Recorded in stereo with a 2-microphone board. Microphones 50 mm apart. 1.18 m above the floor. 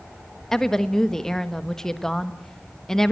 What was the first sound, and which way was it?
A woman speaking, 10° left (ahead or behind).